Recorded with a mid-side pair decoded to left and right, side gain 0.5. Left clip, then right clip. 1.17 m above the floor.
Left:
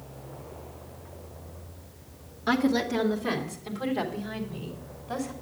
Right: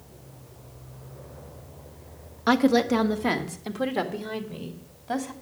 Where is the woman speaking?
50° right, 1.1 m; by 5.3 s 60° right, 2.5 m.